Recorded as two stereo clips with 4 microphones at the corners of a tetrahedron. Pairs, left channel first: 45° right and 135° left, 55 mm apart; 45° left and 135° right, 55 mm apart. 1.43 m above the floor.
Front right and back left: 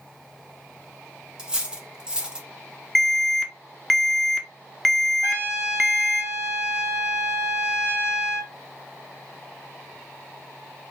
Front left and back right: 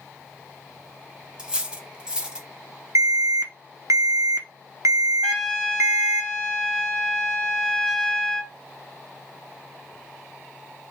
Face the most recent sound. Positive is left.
turn(degrees=120)